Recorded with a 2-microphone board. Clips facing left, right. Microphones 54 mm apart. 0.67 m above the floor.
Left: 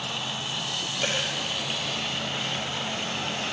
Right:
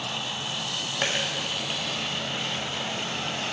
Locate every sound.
1.0 s a dropped coin: 60° right (ahead or behind), 1.8 m